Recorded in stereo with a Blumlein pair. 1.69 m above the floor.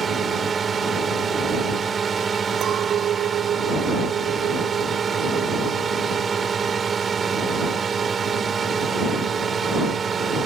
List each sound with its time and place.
0.0 s a drone: 20° right
2.6 s a clink: 30° right